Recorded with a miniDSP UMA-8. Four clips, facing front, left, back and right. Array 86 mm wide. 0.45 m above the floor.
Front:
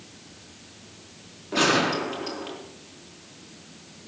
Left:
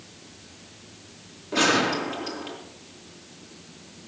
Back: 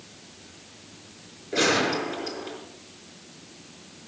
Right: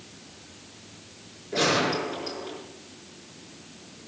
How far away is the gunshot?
About 4 m.